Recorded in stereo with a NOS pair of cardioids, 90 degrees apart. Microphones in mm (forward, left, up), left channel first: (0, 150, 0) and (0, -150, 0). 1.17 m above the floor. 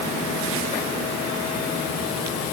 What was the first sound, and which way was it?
Only background noise.